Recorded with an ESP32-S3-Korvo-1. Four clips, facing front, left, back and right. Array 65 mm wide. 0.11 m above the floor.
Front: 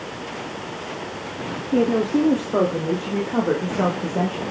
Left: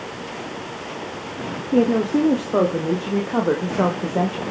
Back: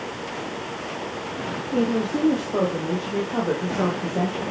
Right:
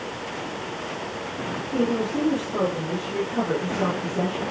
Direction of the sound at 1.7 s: 65° left.